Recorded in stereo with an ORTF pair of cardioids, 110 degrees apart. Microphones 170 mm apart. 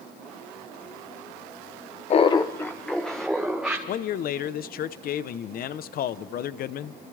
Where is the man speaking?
60° left, 1.0 m.